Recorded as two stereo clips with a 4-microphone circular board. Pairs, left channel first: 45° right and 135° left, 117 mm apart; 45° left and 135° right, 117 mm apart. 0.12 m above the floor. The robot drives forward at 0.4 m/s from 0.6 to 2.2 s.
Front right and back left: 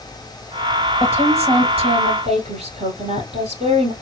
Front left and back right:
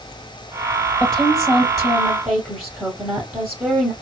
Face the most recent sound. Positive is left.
turn(degrees=135)